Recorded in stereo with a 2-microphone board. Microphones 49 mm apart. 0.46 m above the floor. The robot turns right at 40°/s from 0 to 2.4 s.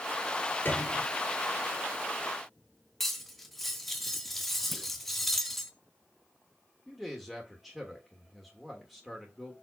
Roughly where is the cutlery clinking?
Centre.